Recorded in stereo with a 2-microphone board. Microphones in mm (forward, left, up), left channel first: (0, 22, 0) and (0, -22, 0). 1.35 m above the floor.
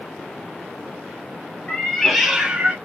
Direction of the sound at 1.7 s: 20° left (ahead or behind).